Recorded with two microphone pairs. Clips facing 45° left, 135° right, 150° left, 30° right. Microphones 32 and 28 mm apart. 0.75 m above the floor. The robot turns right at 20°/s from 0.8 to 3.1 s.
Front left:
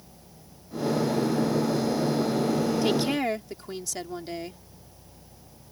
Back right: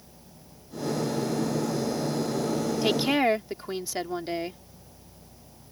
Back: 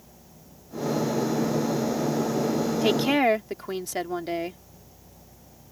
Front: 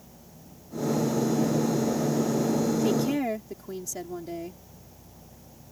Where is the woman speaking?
155° left; by 4.6 s 160° left.